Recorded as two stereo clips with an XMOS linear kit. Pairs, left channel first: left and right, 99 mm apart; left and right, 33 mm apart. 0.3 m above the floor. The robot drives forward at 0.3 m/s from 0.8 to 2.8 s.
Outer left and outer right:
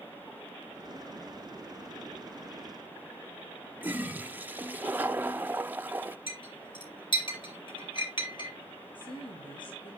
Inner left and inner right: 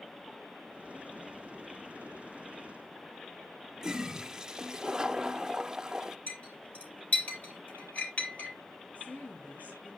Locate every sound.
3.8 s a toilet flushing: 20° right (ahead or behind), 0.6 m
6.3 s a clink: 55° left (ahead or behind), 4 m
8.9 s a woman speaking: 55° left (ahead or behind), 7.5 m